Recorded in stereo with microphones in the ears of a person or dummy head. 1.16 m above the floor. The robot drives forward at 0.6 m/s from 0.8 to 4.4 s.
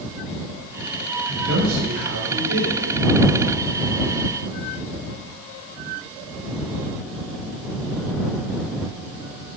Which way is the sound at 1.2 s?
75° right (ahead or behind).